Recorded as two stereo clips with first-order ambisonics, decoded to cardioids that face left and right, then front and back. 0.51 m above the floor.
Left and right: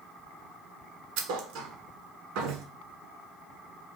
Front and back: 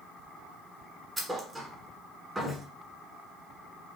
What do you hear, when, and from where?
1.2 s a thud: 100° right, 1.0 m